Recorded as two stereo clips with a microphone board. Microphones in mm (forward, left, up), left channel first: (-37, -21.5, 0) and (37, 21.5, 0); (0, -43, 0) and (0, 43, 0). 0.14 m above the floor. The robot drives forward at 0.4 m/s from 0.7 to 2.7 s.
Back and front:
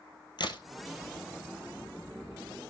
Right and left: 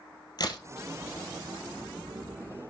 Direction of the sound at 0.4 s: 125° right.